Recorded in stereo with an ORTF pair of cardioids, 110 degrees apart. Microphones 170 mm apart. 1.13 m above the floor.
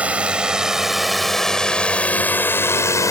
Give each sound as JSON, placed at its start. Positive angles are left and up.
{"t": 0.0, "sound": "a drone", "azimuth_deg": -5}